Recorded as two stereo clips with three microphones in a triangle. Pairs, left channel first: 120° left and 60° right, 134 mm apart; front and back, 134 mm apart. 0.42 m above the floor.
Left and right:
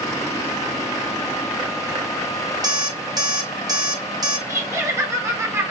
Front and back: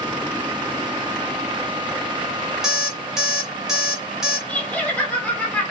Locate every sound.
2.6 s an alarm clock: 95° right, 0.6 m
4.5 s laughter: 55° right, 0.8 m